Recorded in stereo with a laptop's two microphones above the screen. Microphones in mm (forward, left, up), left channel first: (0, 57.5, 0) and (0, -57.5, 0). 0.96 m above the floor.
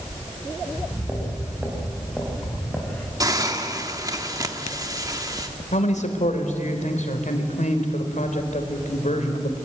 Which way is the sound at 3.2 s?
30° right (ahead or behind).